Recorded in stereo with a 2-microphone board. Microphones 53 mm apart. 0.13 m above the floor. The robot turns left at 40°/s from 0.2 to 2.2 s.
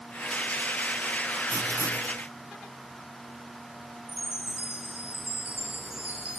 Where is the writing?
45° right (ahead or behind), 1.9 m; by 2.2 s 65° right (ahead or behind), 1.9 m.